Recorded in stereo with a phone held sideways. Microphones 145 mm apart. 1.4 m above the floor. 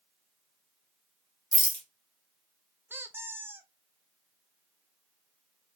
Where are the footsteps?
No footsteps in this recording.